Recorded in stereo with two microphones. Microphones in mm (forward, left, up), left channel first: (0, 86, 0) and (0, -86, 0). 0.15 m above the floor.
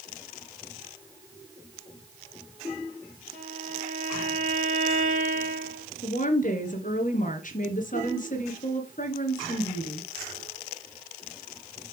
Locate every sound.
3.3 s a violin: 50° right (ahead or behind), 3 m
6.0 s a woman speaking: 55° left (ahead or behind), 2 m